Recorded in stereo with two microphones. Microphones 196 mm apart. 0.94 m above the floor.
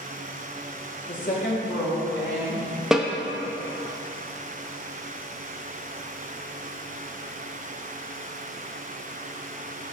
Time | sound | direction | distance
1.1 | a woman speaking | 35° left (ahead or behind) | 1.8 m
2.9 | a snare drum | centre (ahead or behind) | 0.5 m